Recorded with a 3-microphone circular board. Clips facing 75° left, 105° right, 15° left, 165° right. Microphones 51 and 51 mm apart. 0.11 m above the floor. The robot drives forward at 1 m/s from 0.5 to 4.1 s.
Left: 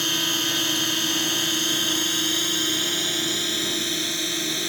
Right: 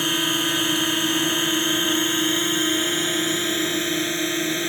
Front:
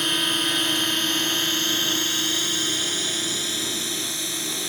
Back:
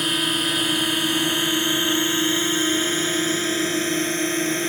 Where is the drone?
85° right; by 4.7 s 155° right.